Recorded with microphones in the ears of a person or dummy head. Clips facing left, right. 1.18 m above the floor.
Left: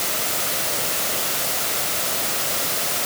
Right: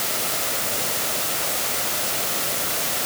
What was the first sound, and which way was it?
Only background noise.